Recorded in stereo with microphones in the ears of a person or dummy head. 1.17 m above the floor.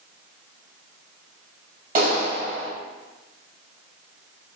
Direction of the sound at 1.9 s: 50° right (ahead or behind).